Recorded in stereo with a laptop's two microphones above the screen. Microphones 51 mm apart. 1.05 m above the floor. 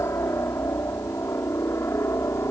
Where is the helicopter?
60° left (ahead or behind).